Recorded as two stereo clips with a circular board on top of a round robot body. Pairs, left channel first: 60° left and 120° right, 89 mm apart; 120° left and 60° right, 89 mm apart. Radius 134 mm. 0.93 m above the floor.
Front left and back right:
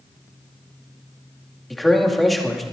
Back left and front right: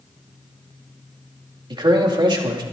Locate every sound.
1.7 s a man speaking: 30° right, 2.5 m